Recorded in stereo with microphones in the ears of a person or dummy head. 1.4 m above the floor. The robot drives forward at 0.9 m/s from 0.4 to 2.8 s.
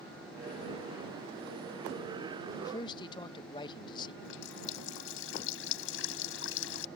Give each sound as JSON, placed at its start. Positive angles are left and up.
{"t": 2.6, "sound": "a man speaking", "side_deg": 20}
{"t": 4.2, "sound": "a running tap", "side_deg": 75}